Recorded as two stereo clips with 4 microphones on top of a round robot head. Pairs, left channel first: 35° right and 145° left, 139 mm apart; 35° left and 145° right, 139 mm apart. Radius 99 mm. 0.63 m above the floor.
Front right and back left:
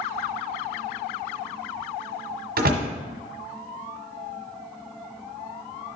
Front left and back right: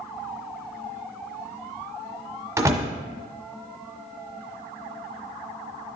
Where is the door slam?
145° left, 1.3 m.